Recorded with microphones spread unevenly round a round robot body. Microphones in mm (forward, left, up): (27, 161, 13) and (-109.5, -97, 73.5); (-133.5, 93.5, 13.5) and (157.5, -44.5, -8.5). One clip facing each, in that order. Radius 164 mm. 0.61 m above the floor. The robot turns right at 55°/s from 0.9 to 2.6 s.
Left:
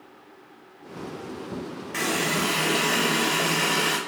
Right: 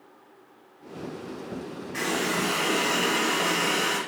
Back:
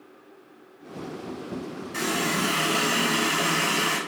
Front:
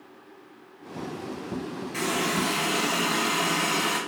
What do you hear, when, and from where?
1.9 s a running tap: 85° left, 2 m; by 4.0 s 120° left, 2 m